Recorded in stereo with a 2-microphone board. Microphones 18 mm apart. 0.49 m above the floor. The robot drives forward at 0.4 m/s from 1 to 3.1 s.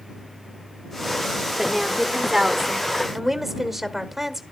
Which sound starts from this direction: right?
A woman speaking, at 1.6 s.